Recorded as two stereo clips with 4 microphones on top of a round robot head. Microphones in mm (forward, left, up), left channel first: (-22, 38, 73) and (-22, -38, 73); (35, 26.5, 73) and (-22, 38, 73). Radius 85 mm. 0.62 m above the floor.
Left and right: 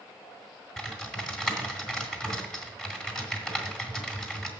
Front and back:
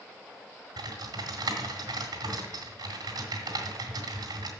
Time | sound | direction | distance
0.8 | typing on a keyboard | 175° left | 2.5 m